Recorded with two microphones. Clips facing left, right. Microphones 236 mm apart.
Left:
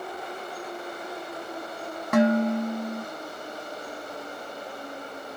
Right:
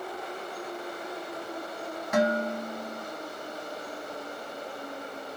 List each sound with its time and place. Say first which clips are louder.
2.1 s dishes clattering: left 6 dB; 55° left (ahead or behind), 0.9 m